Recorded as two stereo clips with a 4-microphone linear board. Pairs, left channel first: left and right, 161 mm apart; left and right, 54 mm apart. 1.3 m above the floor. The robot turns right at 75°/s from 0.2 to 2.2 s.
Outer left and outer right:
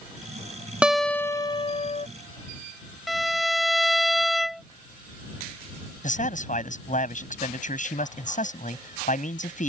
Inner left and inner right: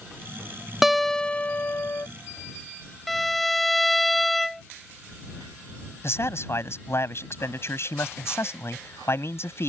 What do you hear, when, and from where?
0.8 s a guitar: 10° right; by 2.1 s 85° left
3.1 s a violin: centre (ahead or behind)
6.0 s a man speaking: 50° left (ahead or behind)